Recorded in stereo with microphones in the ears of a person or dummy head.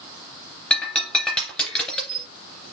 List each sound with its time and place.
0.7 s breaking glass: 5° left (ahead or behind), 3 m